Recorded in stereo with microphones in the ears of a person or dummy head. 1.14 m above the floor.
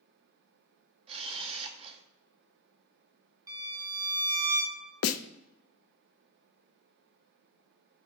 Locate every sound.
1.1 s a camera shutter: 40° right (ahead or behind), 0.8 m
3.5 s a violin: 25° right (ahead or behind), 1.0 m
5.0 s a snare drum: 80° left, 0.5 m